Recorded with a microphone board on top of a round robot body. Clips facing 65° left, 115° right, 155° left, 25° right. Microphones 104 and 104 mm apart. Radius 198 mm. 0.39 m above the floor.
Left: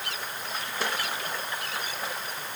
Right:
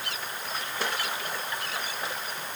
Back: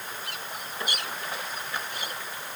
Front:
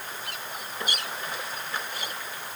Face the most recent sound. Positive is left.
No sound to turn to.